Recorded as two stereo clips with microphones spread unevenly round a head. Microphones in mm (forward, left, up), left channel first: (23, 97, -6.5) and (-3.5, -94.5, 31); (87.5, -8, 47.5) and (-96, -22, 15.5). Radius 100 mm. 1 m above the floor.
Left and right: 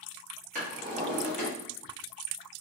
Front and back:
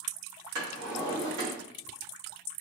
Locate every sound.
0.6 s a drawer: 145° right, 1.3 m